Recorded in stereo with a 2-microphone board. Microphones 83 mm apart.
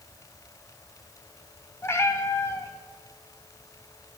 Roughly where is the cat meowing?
Left.